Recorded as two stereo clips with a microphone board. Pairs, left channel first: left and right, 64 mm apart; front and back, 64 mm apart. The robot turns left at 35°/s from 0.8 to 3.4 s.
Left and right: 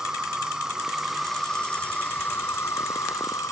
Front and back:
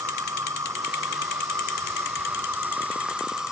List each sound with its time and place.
0.0 s an insect: 170° right; by 3.5 s 100° left